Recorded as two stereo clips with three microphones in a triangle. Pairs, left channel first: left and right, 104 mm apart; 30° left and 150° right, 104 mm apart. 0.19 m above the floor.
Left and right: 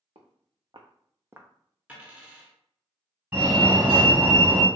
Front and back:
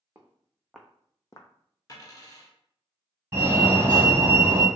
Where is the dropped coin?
15° right, 1.1 m.